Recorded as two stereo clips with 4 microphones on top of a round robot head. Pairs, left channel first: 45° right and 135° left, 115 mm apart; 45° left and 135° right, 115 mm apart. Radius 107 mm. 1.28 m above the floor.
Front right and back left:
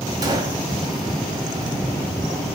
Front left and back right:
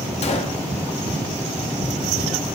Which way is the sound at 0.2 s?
80° left.